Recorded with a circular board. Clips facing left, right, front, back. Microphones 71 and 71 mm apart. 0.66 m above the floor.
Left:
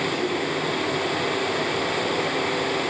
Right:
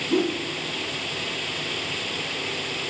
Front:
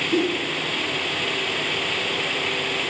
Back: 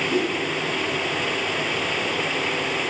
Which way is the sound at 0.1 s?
110° right.